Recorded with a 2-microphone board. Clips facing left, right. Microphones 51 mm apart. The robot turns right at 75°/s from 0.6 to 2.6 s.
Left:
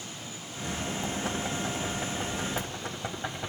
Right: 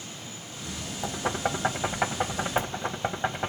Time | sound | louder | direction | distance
1.0 | knocking | right 7 dB | 15° right (ahead or behind) | 1.7 m